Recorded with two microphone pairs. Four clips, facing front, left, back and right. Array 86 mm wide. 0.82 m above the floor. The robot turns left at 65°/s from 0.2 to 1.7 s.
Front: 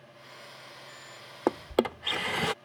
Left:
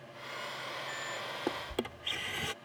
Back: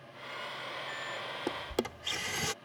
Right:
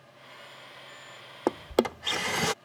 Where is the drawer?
40° right; by 2.5 s 55° right.